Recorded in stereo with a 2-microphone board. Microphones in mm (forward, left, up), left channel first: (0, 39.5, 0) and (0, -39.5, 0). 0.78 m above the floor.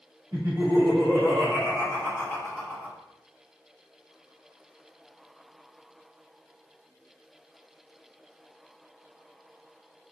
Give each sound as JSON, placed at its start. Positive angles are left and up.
{"t": 0.3, "sound": "laughter", "side_deg": -40, "distance_m": 1.8}